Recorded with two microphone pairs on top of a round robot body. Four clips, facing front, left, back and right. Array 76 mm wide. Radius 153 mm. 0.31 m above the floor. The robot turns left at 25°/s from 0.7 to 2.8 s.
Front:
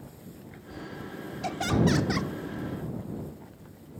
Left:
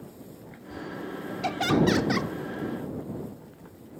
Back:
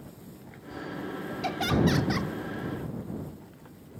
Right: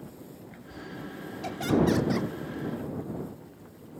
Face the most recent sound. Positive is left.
turn(degrees=75)